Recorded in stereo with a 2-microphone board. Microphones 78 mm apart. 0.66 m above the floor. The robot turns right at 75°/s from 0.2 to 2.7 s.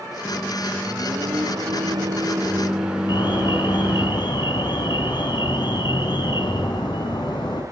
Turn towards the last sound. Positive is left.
turn(degrees=70)  # may be behind; listen again after turning